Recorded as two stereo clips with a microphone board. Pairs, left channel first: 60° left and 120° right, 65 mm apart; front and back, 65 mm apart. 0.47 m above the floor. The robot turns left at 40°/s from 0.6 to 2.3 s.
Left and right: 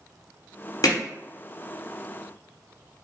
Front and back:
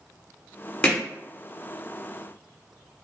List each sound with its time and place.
0.8 s hammering: 70° left, 1.2 m; by 1.0 s 65° left, 1.2 m